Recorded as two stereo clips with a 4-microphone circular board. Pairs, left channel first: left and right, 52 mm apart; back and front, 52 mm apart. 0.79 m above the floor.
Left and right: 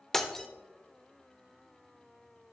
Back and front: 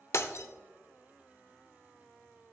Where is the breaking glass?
170° left, 0.7 m.